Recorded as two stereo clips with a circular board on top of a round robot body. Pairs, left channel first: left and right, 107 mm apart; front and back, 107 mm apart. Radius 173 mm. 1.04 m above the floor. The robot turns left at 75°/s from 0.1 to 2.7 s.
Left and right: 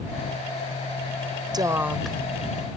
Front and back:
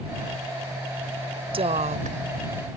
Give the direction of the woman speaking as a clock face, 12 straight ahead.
5 o'clock.